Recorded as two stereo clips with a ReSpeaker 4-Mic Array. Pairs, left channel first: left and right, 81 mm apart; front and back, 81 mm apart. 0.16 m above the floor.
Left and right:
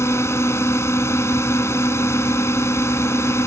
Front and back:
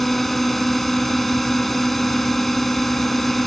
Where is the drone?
85° left.